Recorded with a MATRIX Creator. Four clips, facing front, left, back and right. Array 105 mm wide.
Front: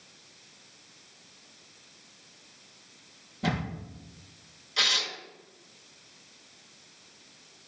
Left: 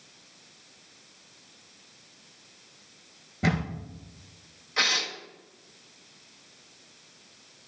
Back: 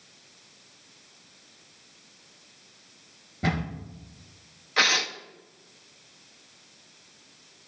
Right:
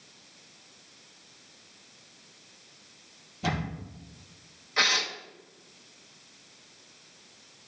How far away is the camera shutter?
About 3 m.